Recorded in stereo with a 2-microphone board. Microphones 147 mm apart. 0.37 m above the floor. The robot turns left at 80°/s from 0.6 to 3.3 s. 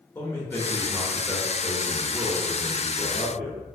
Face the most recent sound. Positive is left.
turn(degrees=-5)  # may be behind; listen again after turning